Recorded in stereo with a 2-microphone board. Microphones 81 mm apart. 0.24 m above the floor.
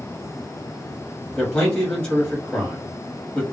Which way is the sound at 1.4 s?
10° left (ahead or behind).